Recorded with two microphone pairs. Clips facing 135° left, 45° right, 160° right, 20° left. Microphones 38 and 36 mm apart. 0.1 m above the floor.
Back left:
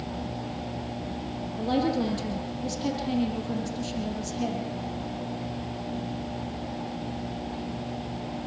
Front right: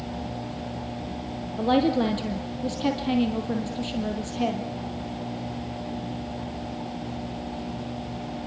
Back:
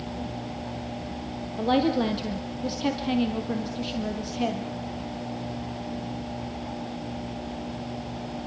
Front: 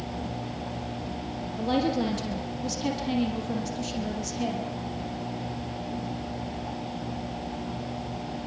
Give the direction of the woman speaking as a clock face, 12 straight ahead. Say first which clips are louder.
Front right 4 dB, back 3 dB; 3 o'clock.